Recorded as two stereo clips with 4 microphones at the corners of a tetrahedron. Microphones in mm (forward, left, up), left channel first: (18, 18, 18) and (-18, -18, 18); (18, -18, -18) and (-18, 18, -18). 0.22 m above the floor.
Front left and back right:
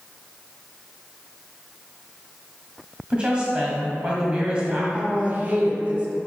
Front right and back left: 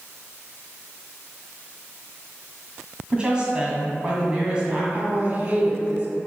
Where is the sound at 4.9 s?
Straight behind, 1.6 m.